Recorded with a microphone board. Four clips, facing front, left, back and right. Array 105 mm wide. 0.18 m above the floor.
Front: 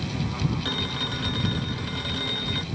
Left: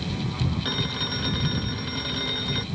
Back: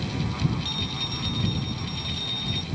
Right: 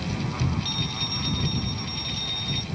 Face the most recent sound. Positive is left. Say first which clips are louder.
# left 3 dB, front 3 dB
turn(degrees=50)